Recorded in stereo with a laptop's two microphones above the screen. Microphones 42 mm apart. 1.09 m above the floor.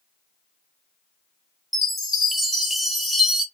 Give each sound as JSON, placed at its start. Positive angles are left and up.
{"t": 1.7, "sound": "a chime", "side_deg": -5, "distance_m": 0.6}